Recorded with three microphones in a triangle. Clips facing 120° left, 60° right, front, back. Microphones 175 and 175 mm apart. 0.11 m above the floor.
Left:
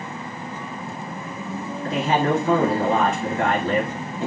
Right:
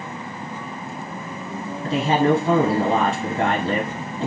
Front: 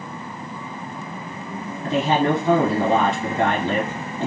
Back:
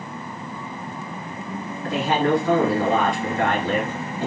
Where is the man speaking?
45° right, 1.5 m.